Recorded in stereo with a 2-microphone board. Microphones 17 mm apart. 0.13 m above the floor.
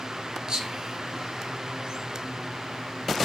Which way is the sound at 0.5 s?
50° right (ahead or behind).